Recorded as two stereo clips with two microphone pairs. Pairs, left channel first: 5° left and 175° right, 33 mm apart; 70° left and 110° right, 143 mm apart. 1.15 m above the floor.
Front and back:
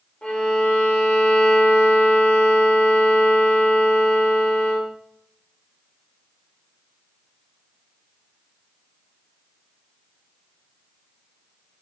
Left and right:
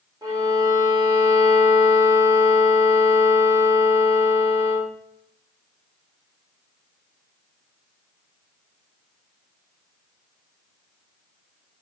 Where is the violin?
45° right, 1.3 m.